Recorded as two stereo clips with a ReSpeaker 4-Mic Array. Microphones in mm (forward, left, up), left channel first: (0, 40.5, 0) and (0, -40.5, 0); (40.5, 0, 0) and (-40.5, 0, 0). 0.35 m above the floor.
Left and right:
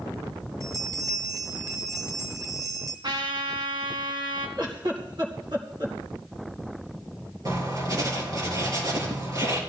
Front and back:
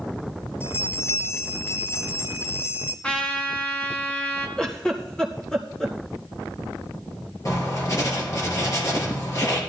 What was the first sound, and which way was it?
A bell, 55° right.